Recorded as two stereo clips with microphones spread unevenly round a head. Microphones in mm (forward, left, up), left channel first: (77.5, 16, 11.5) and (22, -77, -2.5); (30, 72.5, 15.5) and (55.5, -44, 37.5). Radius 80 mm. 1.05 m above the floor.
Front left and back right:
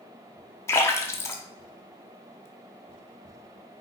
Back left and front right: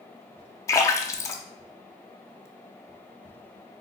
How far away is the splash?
About 0.6 m.